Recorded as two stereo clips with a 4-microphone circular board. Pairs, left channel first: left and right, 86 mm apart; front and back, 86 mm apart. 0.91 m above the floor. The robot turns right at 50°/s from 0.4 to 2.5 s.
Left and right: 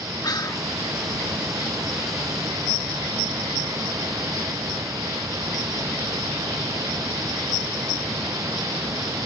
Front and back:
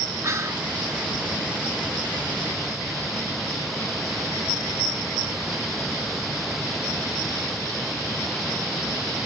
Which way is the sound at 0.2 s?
130° left.